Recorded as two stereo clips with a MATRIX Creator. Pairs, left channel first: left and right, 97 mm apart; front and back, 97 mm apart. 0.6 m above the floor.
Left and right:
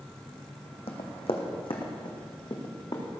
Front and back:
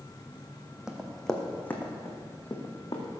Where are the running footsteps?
95° left, 1.7 m; by 3.0 s 45° left, 3 m.